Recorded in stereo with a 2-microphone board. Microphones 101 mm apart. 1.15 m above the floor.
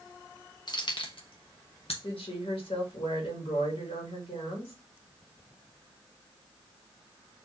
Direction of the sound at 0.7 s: 45° left (ahead or behind).